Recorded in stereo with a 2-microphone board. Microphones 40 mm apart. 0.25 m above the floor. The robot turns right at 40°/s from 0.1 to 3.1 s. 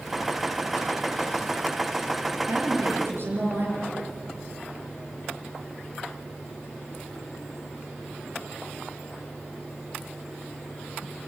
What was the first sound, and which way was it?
A woman speaking, 75° right (ahead or behind).